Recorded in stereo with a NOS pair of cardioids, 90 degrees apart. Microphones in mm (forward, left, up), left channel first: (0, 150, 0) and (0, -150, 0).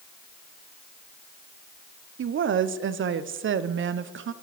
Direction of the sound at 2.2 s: 40° right.